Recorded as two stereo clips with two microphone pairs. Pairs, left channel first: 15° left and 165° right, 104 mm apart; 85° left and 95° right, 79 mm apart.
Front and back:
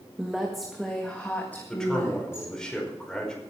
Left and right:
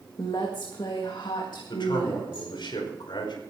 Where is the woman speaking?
115° left, 1.7 m; by 2.5 s 80° left, 2.5 m.